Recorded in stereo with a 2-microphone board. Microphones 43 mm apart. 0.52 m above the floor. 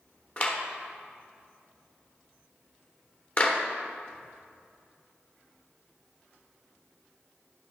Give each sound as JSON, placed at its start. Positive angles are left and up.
{"t": 0.4, "sound": "a clap", "side_deg": 35, "distance_m": 1.0}